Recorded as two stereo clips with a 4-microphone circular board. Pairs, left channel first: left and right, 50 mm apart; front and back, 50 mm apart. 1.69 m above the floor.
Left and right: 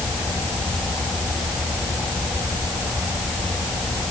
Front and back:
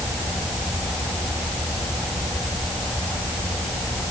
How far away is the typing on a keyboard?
No typing on a keyboard in this recording.